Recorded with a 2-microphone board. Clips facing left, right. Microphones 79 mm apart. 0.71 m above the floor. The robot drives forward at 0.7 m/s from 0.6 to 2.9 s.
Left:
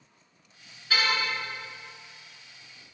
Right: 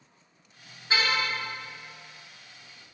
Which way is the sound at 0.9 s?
25° right (ahead or behind).